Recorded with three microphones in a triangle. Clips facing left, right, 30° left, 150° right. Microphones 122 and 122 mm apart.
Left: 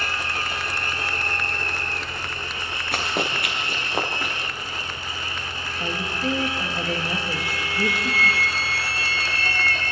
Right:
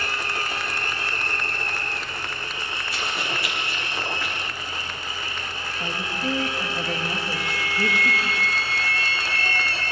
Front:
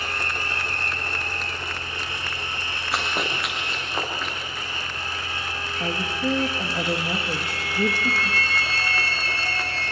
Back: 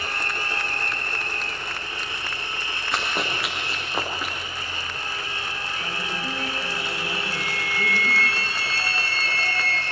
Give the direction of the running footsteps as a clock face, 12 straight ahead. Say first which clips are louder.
Left 5 dB, even; 8 o'clock.